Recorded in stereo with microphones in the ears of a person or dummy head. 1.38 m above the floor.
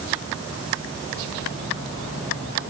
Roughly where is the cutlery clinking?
No cutlery clinking in this recording.